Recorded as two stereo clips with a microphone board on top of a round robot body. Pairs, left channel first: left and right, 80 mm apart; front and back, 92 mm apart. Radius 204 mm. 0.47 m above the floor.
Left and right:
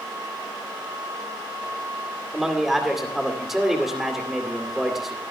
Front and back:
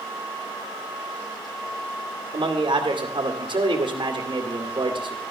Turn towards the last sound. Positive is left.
turn(degrees=180)